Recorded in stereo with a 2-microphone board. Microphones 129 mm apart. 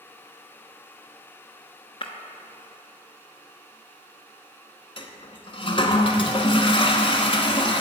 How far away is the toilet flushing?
About 0.9 m.